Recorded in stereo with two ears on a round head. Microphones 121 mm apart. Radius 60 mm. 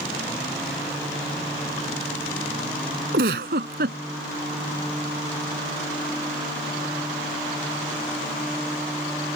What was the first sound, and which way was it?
A giggle, 85° right.